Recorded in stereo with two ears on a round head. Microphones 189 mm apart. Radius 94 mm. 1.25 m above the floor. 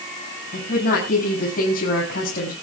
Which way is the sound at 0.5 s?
40° left (ahead or behind).